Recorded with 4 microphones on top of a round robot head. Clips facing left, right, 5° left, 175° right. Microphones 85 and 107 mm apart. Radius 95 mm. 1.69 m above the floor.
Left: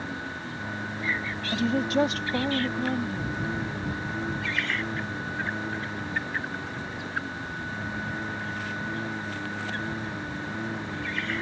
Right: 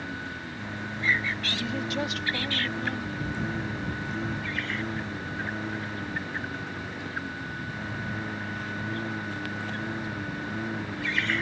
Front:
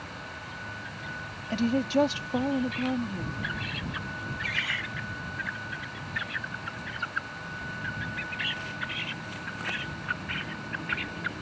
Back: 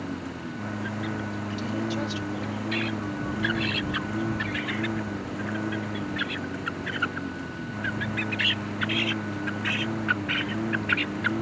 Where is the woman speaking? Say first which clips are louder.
Left 10 dB, front 6 dB; 40° left.